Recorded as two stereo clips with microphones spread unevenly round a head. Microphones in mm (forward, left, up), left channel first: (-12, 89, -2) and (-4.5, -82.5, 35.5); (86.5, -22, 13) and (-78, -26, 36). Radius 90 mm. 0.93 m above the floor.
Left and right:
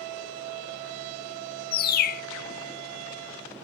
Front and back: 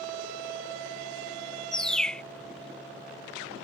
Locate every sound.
1.7 s a bird: 100° left